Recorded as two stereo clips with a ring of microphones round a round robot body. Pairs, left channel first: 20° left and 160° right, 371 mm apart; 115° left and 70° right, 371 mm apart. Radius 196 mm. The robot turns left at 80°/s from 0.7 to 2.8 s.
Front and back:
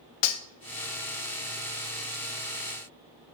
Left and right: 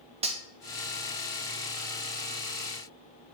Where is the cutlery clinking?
5° left, 0.7 m.